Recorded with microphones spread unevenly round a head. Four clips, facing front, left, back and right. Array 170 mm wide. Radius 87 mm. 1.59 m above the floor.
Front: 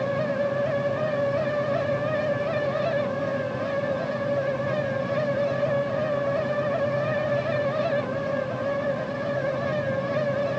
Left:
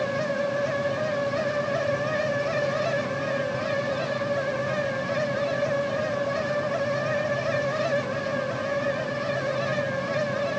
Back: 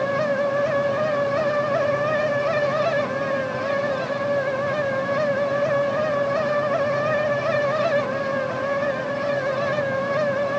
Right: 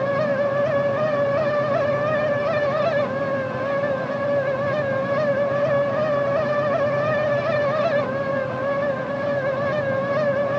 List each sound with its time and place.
Only background noise.